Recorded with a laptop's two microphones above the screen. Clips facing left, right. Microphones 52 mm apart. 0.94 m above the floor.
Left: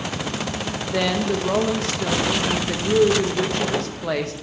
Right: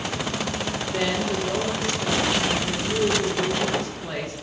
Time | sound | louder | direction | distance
0.8 | a woman speaking | left 4 dB | 65° left (ahead or behind) | 0.5 m